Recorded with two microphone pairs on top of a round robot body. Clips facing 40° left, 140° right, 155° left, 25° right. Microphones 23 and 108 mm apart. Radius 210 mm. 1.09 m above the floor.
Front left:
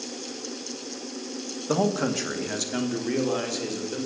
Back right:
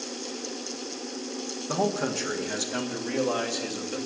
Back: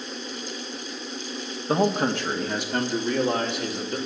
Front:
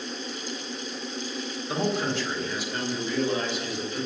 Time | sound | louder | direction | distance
1.7 | a man speaking | front left 3 dB, back 5 dB | 110° left | 1.6 m